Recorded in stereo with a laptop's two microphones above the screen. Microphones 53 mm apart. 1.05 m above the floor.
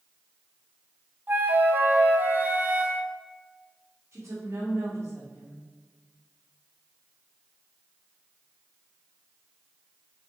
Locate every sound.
1.3 s a flute: 40° right (ahead or behind), 1.1 m
4.1 s a woman speaking: 70° right (ahead or behind), 2 m